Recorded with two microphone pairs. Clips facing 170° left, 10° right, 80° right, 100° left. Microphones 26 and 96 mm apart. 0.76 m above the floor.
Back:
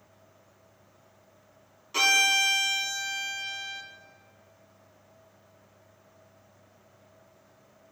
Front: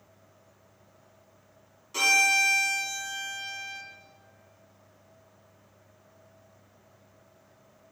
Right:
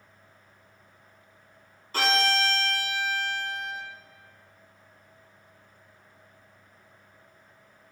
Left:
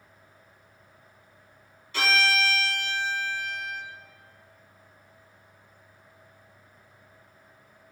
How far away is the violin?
About 1.4 m.